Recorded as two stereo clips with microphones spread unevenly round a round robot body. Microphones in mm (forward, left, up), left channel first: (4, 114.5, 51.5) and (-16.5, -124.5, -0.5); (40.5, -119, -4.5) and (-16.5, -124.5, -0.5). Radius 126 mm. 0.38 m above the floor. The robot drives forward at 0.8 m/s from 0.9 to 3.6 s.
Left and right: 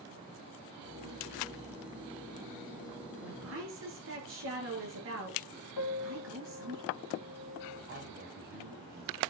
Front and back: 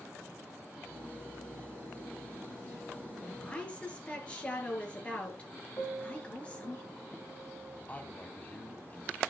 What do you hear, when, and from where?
3.2 s a woman speaking: 60° right, 7.5 m
5.8 s a piano: 70° left, 2.5 m
7.9 s a man speaking: 55° right, 2 m